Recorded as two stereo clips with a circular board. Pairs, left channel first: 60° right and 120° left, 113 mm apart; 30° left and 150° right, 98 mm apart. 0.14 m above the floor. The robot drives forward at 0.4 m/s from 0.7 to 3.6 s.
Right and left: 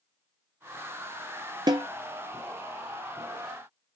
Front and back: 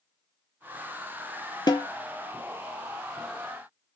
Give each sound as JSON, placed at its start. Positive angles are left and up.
{"t": 1.7, "sound": "a snare drum", "azimuth_deg": 70, "distance_m": 0.5}